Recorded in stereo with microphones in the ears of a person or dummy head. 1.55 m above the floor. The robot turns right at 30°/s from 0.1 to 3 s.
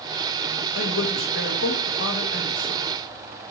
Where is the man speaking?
75° left, 2 m; by 2.9 s 135° left, 2 m.